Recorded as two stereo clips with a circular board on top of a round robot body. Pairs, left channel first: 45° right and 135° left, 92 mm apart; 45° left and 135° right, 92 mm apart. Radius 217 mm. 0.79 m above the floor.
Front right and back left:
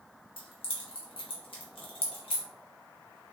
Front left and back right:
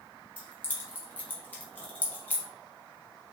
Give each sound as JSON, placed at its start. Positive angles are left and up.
{"t": 0.4, "sound": "keys jangling", "azimuth_deg": -25, "distance_m": 1.2}